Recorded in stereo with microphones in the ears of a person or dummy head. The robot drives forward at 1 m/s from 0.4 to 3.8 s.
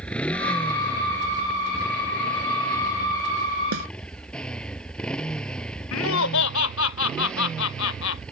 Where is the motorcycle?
10° left (ahead or behind); by 8.3 s 5° left (ahead or behind).